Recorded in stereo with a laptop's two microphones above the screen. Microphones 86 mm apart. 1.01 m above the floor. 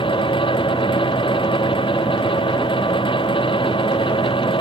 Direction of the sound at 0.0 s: 85° left.